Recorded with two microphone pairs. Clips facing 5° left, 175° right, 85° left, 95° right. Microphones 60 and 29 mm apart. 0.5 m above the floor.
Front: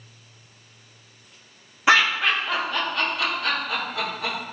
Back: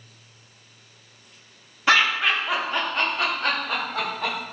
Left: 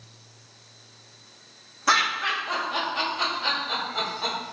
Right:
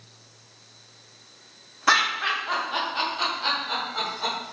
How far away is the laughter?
About 0.8 m.